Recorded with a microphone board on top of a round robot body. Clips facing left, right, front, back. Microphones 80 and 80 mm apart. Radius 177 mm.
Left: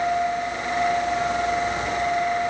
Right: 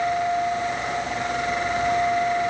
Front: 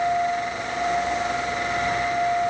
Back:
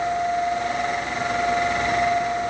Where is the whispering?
I don't hear whispering.